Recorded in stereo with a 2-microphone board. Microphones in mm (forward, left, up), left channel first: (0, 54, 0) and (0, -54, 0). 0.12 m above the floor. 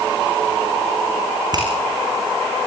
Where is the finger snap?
40° right (ahead or behind), 7 m.